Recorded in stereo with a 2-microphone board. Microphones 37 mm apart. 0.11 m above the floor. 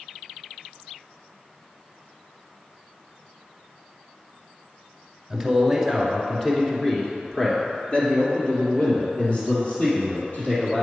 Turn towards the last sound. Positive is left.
turn(degrees=40)  # may be behind; listen again after turning